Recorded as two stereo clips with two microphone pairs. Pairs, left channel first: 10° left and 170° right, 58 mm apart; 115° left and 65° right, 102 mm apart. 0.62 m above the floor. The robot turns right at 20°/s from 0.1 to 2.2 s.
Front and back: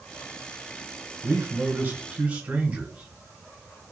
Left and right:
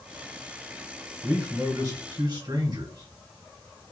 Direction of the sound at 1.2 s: 125° right.